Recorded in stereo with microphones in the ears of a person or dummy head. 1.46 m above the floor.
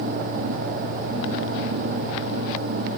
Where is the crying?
I don't hear crying.